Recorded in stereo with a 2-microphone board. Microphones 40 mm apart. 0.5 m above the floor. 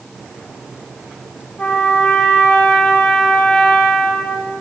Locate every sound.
1.6 s a trumpet: 40° left (ahead or behind), 3 m